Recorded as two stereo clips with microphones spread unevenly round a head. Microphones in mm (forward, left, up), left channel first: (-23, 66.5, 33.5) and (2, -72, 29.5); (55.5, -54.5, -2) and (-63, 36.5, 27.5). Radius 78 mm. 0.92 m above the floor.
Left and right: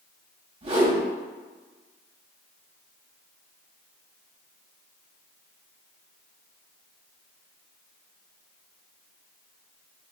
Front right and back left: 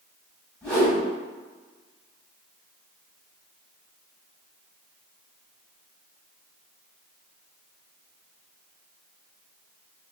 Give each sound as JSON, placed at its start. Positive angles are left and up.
{"t": 0.6, "sound": "a whoosh", "azimuth_deg": -115, "distance_m": 1.2}